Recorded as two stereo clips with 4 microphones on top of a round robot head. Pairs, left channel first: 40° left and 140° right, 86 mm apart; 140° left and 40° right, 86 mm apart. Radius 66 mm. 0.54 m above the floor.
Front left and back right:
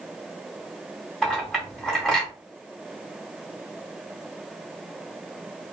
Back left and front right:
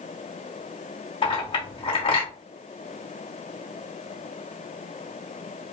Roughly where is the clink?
Behind left.